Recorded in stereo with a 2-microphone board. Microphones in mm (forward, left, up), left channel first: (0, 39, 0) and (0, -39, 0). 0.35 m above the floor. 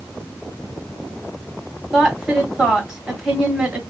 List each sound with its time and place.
1.9 s a woman speaking: 10° right (ahead or behind), 2.5 m